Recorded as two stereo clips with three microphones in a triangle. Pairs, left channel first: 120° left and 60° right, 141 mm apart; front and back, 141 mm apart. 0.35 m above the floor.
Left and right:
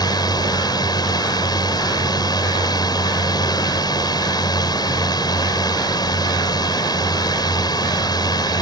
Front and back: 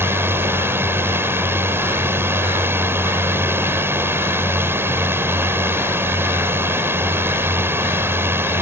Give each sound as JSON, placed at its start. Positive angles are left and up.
{"t": 0.0, "sound": "a drone", "azimuth_deg": 125}